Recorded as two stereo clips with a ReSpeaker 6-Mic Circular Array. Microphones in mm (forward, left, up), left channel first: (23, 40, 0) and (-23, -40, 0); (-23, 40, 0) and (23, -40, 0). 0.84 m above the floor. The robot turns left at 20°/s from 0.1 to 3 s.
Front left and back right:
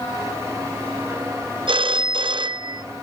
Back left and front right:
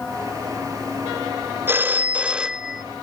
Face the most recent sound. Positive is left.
turn(degrees=-150)